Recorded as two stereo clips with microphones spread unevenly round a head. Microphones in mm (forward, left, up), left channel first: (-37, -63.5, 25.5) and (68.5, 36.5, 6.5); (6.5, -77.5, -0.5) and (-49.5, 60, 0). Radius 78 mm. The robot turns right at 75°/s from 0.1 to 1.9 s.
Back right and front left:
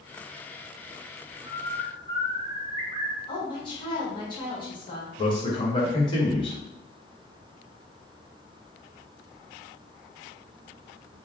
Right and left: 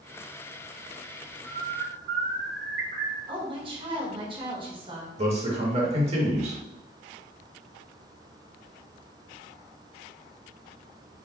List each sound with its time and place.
1.4 s a bird: 55° left, 0.9 m; by 3.2 s 90° left, 0.9 m
3.3 s a woman speaking: 165° left, 1.4 m
5.2 s a man speaking: 160° left, 1.3 m